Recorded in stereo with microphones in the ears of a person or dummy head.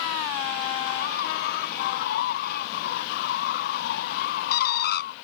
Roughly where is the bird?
Left.